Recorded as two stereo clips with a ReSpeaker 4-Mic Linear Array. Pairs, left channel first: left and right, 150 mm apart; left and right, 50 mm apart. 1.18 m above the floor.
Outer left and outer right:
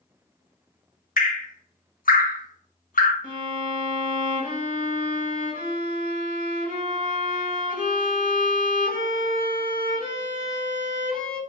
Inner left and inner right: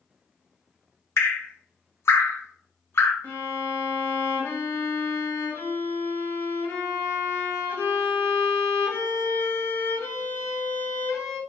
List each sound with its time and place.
1.2 s dripping: 70° left (ahead or behind), 0.6 m
3.2 s a violin: 70° left (ahead or behind), 1.0 m